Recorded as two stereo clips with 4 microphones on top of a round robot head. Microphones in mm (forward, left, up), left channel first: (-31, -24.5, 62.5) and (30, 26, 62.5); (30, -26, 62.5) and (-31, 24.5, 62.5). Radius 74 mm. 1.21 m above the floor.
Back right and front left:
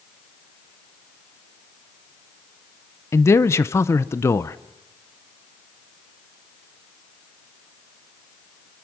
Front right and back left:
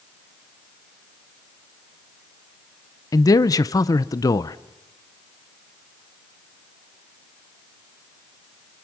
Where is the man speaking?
85° right, 0.7 m.